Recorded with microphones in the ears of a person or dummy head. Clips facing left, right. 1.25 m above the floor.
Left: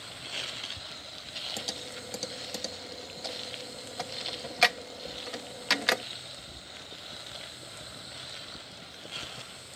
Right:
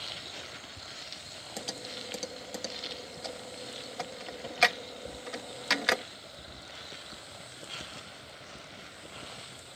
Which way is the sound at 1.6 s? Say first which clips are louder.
Even; centre (ahead or behind).